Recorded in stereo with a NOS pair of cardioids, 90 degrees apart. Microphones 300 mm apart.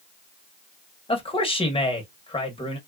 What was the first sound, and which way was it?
A man speaking, 20° left.